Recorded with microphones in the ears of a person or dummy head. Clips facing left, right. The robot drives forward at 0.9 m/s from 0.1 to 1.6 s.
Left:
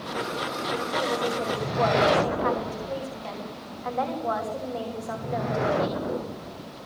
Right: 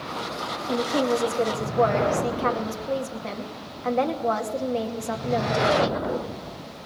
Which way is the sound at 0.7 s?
60° right (ahead or behind).